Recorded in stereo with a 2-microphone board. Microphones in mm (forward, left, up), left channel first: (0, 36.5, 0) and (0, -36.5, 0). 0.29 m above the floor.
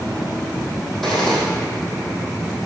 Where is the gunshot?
Centre (ahead or behind), 3 m.